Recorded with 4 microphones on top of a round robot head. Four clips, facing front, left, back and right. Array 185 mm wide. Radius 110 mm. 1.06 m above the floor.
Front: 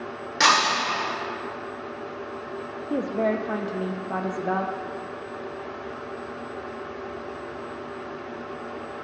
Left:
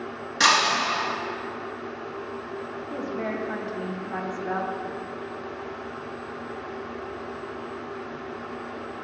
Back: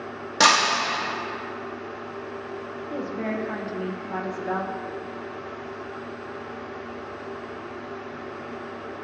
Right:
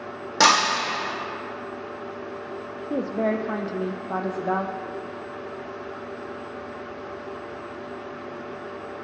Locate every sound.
0.4 s breaking glass: 120° right, 1.6 m
2.9 s a woman speaking: 50° right, 0.5 m